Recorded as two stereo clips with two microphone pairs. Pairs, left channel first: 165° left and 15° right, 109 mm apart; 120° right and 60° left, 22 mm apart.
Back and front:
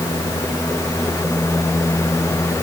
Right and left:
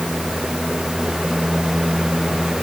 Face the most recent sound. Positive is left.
No sound to turn to.